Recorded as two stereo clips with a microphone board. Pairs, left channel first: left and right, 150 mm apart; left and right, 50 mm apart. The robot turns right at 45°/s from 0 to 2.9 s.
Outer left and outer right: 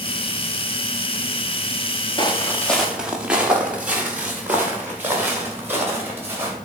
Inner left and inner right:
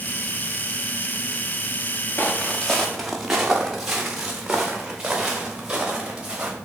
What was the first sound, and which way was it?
Footsteps, 30° left (ahead or behind).